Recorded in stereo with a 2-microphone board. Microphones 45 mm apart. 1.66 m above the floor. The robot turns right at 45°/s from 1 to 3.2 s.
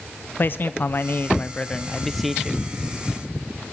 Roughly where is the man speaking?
Behind left.